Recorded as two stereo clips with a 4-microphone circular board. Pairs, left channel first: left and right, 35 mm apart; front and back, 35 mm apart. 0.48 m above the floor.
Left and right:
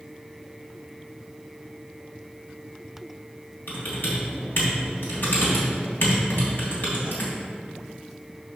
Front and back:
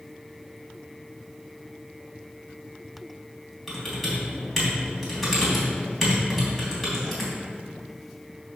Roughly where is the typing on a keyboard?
Left.